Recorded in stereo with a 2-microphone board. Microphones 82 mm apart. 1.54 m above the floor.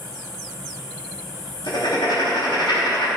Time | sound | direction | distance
1.7 | writing | 85° left | 3.5 m